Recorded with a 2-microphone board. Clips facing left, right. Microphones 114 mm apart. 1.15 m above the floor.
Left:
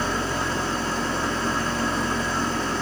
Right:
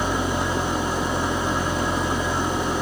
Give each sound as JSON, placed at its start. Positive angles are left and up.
{"t": 0.0, "sound": "an engine running", "side_deg": -15, "distance_m": 1.3}